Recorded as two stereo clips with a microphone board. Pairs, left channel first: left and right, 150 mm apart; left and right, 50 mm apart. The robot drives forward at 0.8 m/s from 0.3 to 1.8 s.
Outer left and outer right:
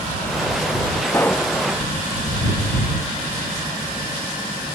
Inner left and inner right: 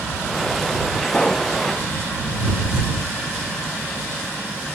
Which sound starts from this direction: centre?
A pop, at 1.1 s.